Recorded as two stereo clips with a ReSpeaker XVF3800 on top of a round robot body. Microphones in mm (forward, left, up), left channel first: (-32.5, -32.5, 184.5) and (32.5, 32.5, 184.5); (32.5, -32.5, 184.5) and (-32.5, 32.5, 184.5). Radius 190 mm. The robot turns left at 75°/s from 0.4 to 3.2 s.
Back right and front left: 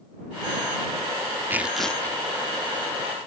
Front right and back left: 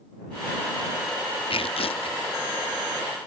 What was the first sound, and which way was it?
Tearing paper, 25° right.